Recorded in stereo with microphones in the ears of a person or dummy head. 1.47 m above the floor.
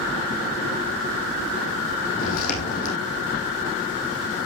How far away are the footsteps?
About 4 m.